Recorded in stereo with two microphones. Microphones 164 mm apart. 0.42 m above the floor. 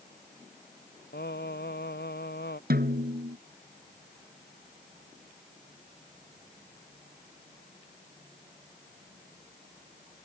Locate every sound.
1.1 s singing: 90° left
2.7 s a snare drum: 70° right (ahead or behind)